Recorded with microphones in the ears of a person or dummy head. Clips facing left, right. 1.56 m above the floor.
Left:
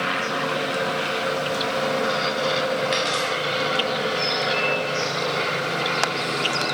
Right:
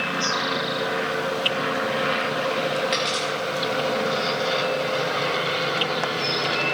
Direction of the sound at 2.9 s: Centre (ahead or behind).